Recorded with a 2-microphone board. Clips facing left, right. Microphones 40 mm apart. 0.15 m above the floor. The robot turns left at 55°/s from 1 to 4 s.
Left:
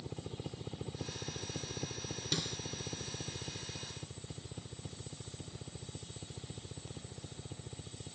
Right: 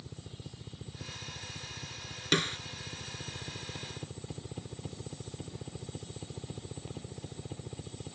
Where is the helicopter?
140° left; by 8.2 s 25° right.